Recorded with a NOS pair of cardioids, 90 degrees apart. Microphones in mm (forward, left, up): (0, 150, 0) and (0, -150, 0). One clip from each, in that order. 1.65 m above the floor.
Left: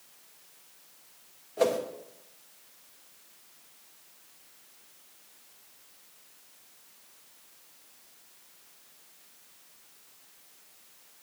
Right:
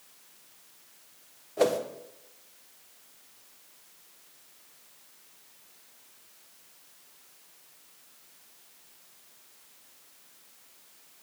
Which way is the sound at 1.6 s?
15° right.